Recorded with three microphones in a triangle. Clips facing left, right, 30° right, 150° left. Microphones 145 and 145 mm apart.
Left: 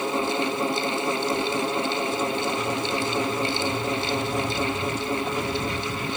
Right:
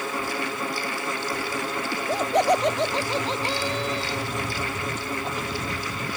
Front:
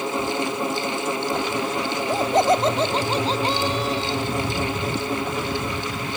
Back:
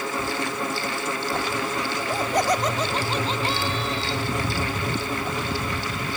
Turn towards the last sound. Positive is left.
turn(degrees=-75)